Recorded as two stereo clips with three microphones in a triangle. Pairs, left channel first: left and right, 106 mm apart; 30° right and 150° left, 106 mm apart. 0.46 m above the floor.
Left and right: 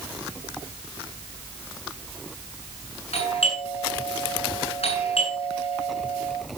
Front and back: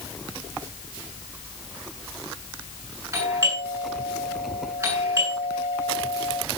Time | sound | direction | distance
3.1 | a doorbell | 90° left | 8.5 m